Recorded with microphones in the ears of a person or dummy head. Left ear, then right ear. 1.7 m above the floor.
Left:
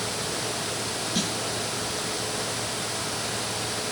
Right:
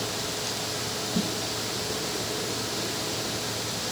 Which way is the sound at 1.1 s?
60° left (ahead or behind).